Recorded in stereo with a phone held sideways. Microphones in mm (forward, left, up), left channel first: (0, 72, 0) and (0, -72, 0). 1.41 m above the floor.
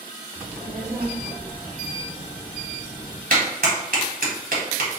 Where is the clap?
70° right (ahead or behind), 1.3 m.